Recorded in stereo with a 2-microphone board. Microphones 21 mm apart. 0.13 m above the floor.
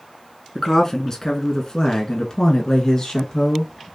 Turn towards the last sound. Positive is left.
turn(degrees=35)  # may be behind; listen again after turning